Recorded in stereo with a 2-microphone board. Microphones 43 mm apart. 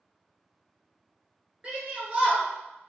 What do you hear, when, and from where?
1.6 s a shout: 30° right (ahead or behind), 1.5 m